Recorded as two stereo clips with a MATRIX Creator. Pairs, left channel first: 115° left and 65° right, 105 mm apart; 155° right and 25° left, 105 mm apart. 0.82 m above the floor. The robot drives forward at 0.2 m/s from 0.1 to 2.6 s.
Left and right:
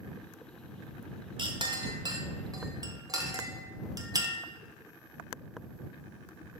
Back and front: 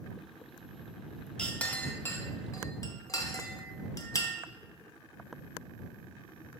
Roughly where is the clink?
Right.